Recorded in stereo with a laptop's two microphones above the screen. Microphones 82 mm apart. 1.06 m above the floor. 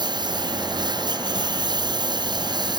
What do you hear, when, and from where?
0.0 s a lawn mower: 65° right (ahead or behind)